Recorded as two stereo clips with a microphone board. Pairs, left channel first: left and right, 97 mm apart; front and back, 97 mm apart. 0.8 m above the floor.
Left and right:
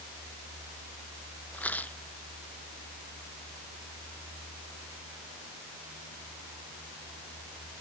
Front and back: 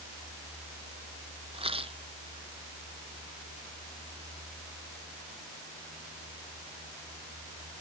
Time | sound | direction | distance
1.5 | a rattle | 165° left | ?